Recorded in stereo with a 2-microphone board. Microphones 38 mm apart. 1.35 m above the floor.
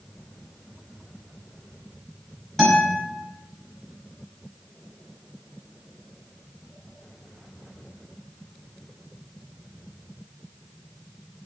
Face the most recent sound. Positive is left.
turn(degrees=15)  # may be behind; listen again after turning